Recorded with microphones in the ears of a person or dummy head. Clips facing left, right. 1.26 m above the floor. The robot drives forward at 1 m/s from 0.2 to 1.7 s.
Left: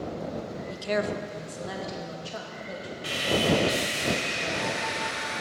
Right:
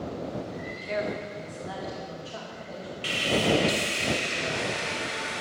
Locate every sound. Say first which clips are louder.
0.7 s a woman speaking: left 3 dB; 45° left (ahead or behind), 0.7 m; by 2.9 s 35° left (ahead or behind), 1.0 m
3.0 s sawing: even; 35° right (ahead or behind), 0.8 m